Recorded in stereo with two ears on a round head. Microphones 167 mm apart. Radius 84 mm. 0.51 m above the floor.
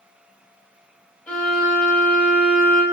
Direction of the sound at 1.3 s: 10° left (ahead or behind).